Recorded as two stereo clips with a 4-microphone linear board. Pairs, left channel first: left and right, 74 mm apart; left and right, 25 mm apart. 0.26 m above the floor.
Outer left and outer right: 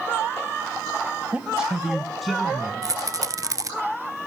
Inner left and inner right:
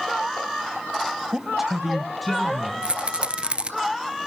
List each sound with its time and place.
1.3 s a man speaking: 15° right (ahead or behind), 1.0 m; by 2.7 s centre (ahead or behind), 2.5 m
2.8 s a rattle: 50° right (ahead or behind), 0.7 m